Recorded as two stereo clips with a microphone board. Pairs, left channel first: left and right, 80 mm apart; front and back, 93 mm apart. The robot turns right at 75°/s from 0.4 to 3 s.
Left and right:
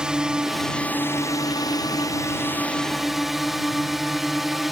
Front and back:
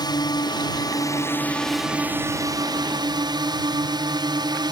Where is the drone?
10° right; by 4.7 s 175° right.